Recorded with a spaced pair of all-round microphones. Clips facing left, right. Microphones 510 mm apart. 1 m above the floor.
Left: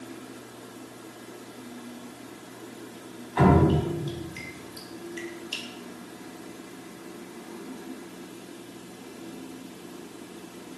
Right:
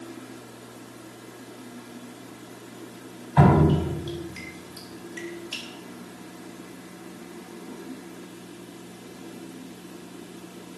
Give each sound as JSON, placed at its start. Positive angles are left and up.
{"t": 3.4, "sound": "dripping", "side_deg": -70, "distance_m": 3.5}